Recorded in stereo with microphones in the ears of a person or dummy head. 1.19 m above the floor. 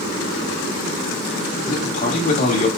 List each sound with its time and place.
1.6 s a man speaking: 40° left (ahead or behind), 1.3 m